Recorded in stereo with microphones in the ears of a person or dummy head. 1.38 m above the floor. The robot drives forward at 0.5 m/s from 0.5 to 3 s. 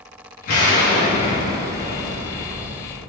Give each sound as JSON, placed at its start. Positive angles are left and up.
{"t": 0.5, "sound": "an explosion", "side_deg": 55, "distance_m": 1.3}